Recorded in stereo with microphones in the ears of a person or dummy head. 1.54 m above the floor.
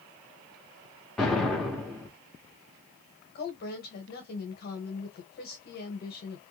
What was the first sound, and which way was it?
An explosion, centre (ahead or behind).